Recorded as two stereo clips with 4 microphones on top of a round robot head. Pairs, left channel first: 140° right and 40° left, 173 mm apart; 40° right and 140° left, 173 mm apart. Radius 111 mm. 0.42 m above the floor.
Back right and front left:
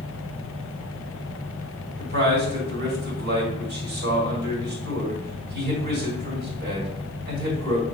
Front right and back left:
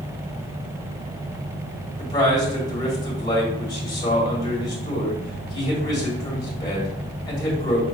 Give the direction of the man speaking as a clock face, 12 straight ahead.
11 o'clock.